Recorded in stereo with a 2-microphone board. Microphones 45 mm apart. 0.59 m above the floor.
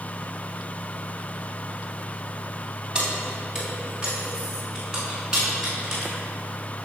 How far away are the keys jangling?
About 3.5 m.